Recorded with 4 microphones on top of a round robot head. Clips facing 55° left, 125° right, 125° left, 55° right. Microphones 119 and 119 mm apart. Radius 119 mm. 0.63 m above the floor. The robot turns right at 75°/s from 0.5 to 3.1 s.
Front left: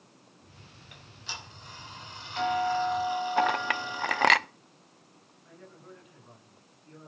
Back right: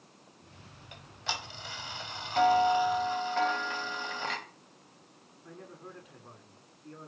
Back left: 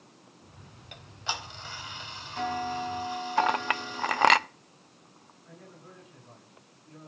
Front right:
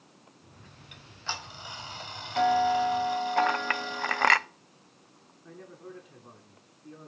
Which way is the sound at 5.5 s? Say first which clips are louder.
Back right 3 dB, front right 5 dB; 80° right.